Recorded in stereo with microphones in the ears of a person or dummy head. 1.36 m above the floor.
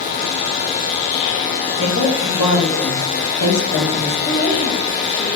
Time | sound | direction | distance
1.8 | a woman speaking | 75° left (ahead or behind) | 3.5 m
4.2 | a woman speaking | 60° left (ahead or behind) | 4 m